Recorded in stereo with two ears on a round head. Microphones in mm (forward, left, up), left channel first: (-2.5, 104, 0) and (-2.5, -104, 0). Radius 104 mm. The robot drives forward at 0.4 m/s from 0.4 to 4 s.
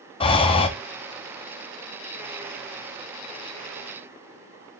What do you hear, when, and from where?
0.2 s breathing: 25° left (ahead or behind), 0.6 m